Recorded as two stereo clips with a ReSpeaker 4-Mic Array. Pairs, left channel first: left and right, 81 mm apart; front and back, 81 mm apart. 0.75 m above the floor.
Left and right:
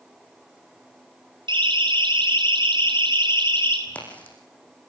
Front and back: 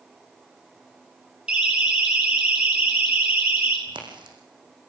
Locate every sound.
1.5 s a siren: 105° right, 9 m; by 3.8 s 110° right, 10.5 m
3.9 s a crack: 165° left, 8.5 m